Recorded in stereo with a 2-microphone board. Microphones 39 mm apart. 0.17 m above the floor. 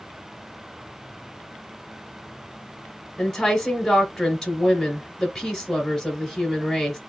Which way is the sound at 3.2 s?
5° left (ahead or behind).